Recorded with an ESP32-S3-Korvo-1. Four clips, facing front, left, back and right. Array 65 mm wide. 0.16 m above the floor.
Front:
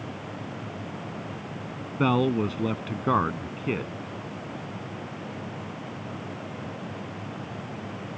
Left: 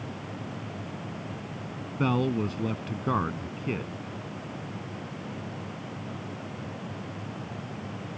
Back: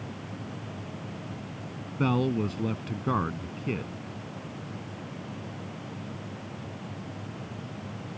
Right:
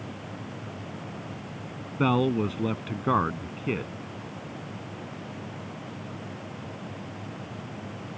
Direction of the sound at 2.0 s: 35° right.